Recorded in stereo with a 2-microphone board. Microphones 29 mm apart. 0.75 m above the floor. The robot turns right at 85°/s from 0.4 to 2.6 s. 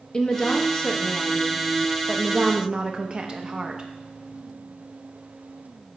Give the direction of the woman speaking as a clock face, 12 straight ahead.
10 o'clock.